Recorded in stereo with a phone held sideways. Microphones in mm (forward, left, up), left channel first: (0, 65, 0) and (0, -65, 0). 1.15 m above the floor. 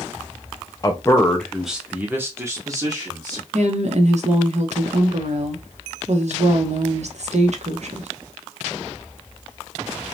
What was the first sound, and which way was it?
A man speaking, 30° left (ahead or behind).